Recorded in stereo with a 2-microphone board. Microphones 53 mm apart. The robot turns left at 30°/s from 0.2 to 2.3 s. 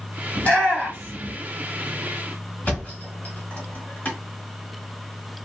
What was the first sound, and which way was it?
A shout, 20° left (ahead or behind).